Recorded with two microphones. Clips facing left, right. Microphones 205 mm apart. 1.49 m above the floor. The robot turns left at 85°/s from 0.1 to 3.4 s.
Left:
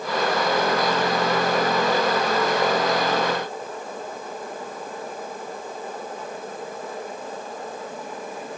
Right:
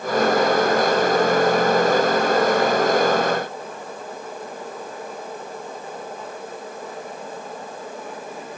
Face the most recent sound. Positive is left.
No sound to turn to.